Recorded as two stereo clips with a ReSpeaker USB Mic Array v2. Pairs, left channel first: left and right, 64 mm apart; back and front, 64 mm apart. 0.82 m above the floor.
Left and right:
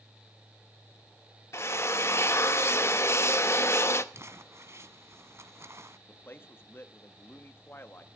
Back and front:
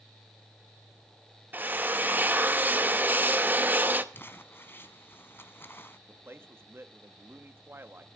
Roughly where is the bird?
I don't hear a bird.